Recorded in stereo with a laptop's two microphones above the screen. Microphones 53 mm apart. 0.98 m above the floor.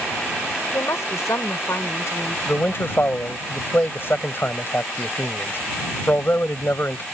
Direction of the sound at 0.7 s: 80° left.